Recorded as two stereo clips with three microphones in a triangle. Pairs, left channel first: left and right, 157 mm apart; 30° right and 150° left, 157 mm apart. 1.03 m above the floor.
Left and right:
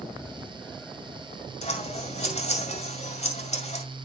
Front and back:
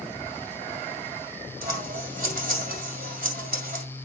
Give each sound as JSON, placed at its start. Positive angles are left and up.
{"t": 1.6, "sound": "scissors", "azimuth_deg": 135, "distance_m": 2.0}